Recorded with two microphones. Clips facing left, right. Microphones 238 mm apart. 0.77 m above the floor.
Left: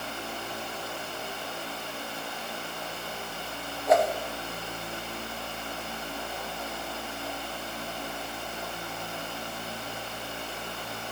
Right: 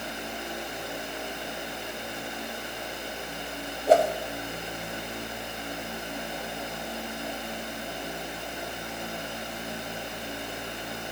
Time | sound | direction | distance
3.9 | a whoosh | 30° right (ahead or behind) | 0.7 m